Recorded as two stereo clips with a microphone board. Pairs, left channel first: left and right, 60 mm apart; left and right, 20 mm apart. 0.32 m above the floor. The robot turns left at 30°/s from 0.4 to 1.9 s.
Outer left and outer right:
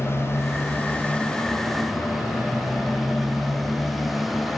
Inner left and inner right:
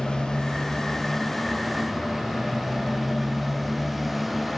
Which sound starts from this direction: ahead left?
A motorcycle, at 0.0 s.